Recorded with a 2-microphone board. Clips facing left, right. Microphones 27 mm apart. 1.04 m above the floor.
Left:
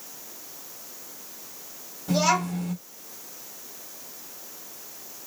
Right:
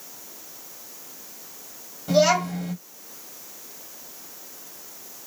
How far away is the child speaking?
About 1.8 m.